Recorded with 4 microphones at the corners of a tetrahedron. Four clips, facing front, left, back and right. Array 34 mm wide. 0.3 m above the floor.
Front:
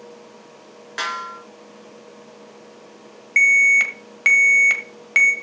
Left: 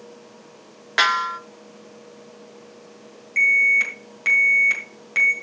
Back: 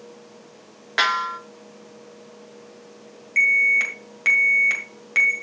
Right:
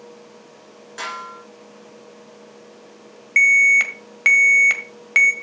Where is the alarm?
60° right, 1.5 m.